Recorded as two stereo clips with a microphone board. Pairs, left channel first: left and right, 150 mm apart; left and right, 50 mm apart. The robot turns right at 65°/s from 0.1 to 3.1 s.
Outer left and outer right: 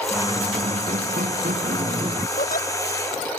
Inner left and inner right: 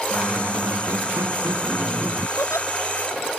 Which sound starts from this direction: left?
A giggle, at 2.4 s.